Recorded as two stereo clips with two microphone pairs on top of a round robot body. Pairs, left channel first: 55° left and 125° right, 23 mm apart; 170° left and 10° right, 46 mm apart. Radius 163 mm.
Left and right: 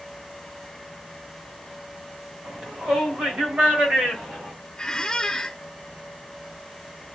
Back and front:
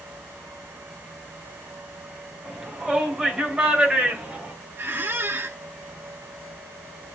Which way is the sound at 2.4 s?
95° right.